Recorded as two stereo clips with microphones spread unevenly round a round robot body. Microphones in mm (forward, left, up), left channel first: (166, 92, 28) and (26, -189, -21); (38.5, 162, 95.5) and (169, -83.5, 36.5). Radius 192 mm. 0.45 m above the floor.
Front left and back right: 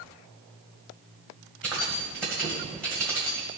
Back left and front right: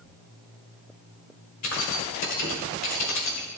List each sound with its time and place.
1.6 s keys jangling: 155° left, 1.6 m